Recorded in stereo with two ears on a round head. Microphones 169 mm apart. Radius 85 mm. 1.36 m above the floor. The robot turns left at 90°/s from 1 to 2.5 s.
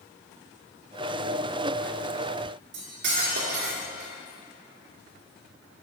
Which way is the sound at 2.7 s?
65° right (ahead or behind).